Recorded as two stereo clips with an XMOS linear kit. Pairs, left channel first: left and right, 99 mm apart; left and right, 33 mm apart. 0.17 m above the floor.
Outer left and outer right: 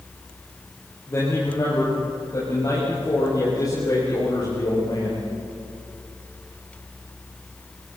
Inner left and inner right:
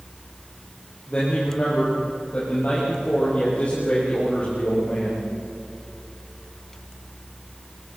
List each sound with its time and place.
1.1 s a man speaking: 30° left (ahead or behind), 6.5 m; by 5.2 s 45° left (ahead or behind), 8 m